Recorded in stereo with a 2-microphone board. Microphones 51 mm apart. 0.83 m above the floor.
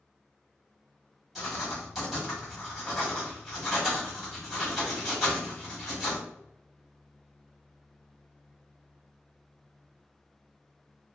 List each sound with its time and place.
1.4 s writing: centre (ahead or behind), 1.2 m